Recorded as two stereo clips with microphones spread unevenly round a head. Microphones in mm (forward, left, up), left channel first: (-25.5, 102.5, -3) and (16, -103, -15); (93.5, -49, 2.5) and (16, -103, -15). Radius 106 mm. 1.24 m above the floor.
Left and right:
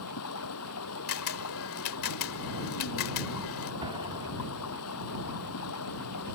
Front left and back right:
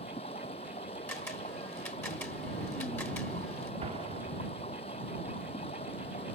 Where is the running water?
85° left.